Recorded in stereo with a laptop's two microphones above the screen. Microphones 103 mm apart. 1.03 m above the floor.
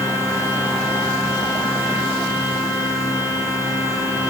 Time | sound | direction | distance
0.0 | a machine running | 30° right (ahead or behind) | 3.5 m